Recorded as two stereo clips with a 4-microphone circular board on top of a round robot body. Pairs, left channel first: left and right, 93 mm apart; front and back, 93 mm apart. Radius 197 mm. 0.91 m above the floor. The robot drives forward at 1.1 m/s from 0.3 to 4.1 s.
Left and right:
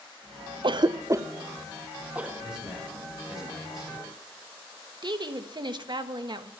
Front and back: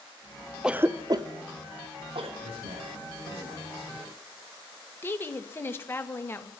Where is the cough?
95° right, 0.7 m; by 2.3 s 165° right, 2.0 m.